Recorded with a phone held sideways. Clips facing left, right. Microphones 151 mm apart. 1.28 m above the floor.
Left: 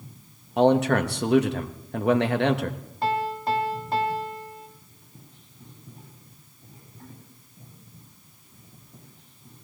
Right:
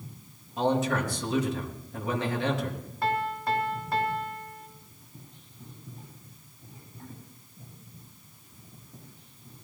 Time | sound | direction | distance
0.6 | a man speaking | 70° left (ahead or behind) | 1.3 m
3.0 | a piano | 25° left (ahead or behind) | 1.7 m